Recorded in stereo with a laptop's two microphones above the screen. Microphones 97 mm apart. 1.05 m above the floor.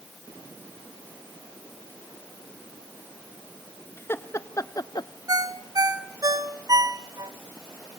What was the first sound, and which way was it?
Laughter, 25° left (ahead or behind).